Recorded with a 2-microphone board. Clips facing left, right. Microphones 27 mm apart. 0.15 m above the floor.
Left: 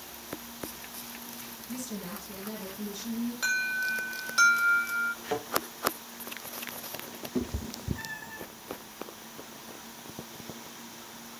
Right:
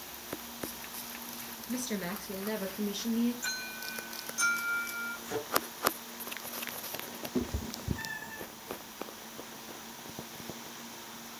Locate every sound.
1.7 s a woman speaking: 50° right (ahead or behind), 2.5 m; by 3.3 s 60° right (ahead or behind), 3.5 m
3.4 s an alarm: 70° left (ahead or behind), 9 m
5.2 s a thud: 45° left (ahead or behind), 8 m
7.3 s a cat meowing: centre (ahead or behind), 0.6 m